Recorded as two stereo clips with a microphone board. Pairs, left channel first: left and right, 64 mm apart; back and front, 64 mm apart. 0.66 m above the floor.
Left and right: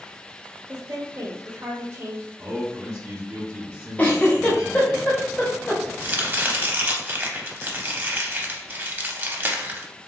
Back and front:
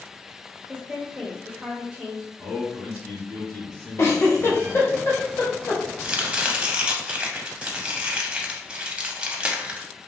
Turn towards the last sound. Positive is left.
turn(degrees=-60)